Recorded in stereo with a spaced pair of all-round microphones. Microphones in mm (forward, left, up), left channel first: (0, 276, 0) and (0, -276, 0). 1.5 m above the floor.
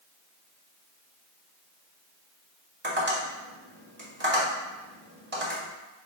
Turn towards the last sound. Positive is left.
turn(degrees=-20)  # may be behind; listen again after turning